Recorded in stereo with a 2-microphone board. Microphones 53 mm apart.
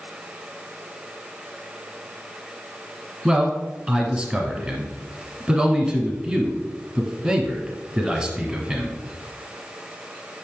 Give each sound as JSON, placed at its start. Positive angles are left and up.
{"t": 3.2, "sound": "a man speaking", "side_deg": -20, "distance_m": 1.3}